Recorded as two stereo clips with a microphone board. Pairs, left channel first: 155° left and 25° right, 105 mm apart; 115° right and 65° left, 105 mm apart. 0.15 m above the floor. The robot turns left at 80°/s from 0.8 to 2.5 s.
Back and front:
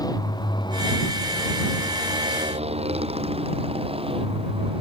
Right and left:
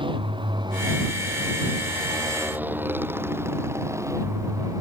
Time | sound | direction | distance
0.0 | a motorcycle | 105° left | ?